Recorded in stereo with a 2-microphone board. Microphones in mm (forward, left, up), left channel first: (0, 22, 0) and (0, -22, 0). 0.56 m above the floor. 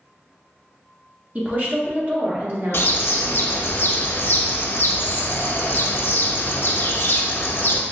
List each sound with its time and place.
1.4 s a woman speaking: 35° right (ahead or behind), 1.0 m; by 3.5 s 55° right (ahead or behind), 1.8 m
2.7 s a bird: 60° left (ahead or behind), 0.6 m